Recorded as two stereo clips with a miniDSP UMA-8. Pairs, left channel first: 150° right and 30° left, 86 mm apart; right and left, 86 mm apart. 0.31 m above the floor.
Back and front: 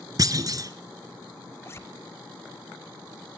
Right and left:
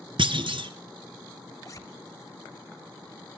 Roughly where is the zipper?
Right.